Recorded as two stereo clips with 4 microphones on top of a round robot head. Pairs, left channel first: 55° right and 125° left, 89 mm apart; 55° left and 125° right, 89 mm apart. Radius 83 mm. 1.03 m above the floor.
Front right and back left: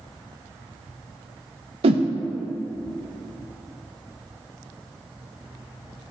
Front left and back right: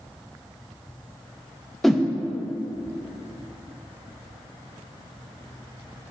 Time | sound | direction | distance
1.8 | a whoosh | 140° left | 0.6 m